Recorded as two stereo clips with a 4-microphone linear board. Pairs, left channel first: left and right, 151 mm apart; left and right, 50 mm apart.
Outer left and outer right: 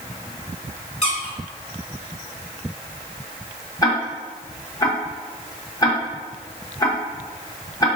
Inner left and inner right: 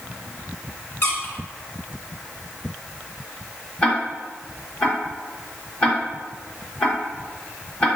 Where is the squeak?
55° left (ahead or behind), 1.2 m.